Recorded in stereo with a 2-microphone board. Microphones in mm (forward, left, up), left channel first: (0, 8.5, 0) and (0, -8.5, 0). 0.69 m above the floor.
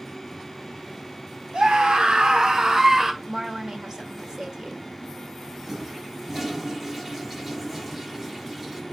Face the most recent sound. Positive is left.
turn(degrees=-15)  # may be behind; listen again after turning